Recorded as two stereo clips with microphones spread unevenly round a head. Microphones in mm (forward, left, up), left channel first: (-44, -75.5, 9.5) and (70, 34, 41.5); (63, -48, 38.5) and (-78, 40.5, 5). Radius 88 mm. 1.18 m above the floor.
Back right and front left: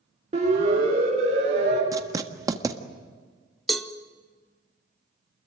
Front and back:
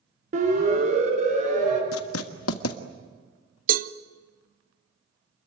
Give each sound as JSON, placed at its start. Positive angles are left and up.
{"t": 0.3, "sound": "a siren", "azimuth_deg": 100, "distance_m": 5.5}
{"t": 1.9, "sound": "writing", "azimuth_deg": -25, "distance_m": 1.6}
{"t": 3.7, "sound": "a cowbell", "azimuth_deg": 140, "distance_m": 0.9}